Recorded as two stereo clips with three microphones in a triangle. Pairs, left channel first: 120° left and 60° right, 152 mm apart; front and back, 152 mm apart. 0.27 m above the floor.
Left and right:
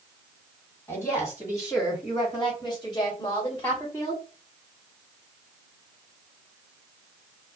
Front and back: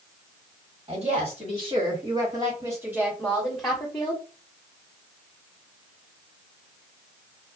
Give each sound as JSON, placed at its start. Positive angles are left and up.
{"t": 0.9, "sound": "a woman speaking", "azimuth_deg": -175, "distance_m": 1.8}